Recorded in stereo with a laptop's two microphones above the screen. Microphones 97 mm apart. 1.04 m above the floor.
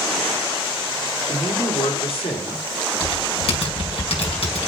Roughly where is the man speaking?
Left.